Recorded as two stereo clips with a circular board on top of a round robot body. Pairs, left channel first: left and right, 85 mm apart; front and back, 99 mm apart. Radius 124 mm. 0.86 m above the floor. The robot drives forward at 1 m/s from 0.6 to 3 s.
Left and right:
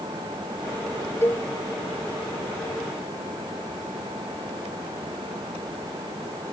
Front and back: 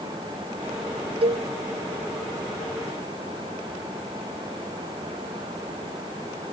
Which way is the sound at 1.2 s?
155° left.